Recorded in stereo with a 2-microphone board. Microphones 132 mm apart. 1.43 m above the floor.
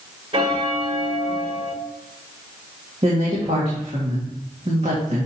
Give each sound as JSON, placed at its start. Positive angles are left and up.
{"t": 0.3, "sound": "a bell", "side_deg": -45, "distance_m": 1.3}
{"t": 3.0, "sound": "a woman speaking", "side_deg": -55, "distance_m": 2.0}